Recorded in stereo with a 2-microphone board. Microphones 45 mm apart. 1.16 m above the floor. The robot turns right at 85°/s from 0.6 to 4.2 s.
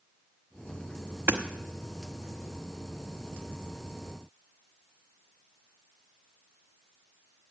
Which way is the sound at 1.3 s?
60° right (ahead or behind).